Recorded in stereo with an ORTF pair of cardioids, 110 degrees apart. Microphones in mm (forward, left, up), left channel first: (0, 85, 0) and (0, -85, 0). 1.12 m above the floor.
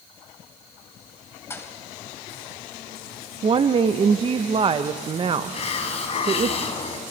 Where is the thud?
15° left, 2.5 m.